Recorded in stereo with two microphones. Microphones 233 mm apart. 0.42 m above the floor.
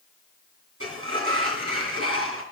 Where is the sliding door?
70° right (ahead or behind), 2.5 m.